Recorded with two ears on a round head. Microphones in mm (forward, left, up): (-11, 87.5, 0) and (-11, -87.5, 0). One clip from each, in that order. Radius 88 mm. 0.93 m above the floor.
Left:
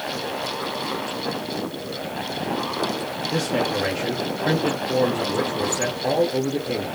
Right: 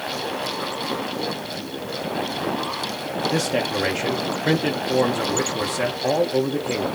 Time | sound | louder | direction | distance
3.3 | a man speaking | left 1 dB | 25° right (ahead or behind) | 0.7 m